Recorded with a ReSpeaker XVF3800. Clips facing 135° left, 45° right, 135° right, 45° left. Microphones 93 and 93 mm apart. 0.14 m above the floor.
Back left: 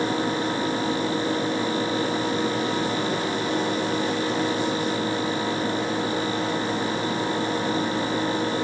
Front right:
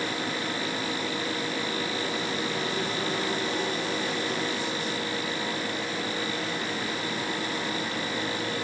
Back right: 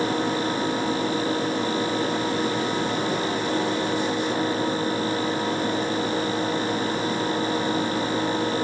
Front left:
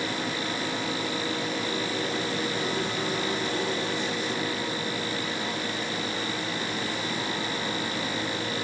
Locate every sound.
Only background noise.